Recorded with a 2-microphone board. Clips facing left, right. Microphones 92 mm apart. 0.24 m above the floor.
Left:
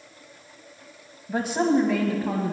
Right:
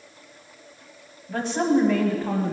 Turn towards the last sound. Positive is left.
turn(degrees=0)  # may be behind; listen again after turning